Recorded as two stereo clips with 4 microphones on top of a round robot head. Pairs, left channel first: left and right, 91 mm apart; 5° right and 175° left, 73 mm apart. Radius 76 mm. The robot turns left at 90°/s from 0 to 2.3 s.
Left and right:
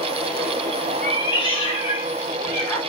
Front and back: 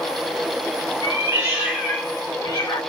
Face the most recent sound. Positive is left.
turn(degrees=30)